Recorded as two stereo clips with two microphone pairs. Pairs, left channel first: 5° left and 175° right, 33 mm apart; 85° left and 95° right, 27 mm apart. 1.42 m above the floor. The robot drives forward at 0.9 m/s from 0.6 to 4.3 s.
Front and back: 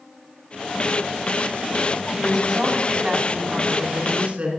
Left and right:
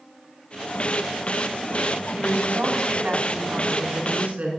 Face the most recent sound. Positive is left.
turn(degrees=-125)